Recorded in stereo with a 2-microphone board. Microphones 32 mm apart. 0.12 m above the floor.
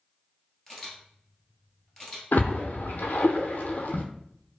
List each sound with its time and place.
0.7 s a camera shutter: 15° left (ahead or behind), 1.3 m
2.3 s a splash: 75° left (ahead or behind), 0.6 m